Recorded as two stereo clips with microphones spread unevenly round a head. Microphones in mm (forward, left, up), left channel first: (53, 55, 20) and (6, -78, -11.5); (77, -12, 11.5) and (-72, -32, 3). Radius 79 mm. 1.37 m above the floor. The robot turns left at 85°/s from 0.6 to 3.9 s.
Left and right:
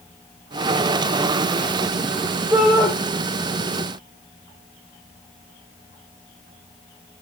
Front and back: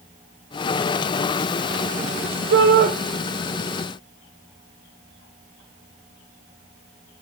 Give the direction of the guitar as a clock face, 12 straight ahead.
No guitar in this recording.